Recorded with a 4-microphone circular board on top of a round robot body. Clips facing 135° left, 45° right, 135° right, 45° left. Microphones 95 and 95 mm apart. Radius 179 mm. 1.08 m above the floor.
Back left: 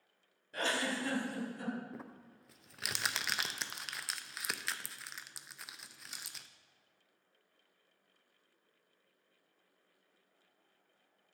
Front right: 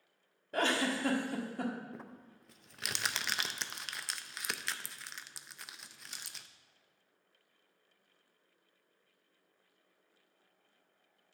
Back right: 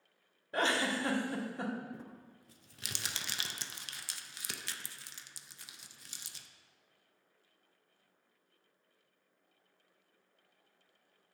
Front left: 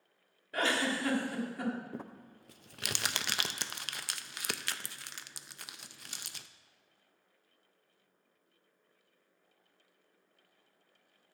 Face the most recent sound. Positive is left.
turn(degrees=45)